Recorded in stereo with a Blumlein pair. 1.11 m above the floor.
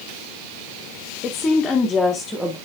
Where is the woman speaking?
25° left, 1.9 m; by 2.5 s 5° right, 2.0 m.